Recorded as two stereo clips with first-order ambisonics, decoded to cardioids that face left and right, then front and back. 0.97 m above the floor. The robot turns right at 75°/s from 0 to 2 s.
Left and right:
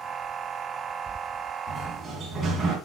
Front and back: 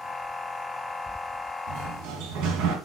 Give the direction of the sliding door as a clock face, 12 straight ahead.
6 o'clock.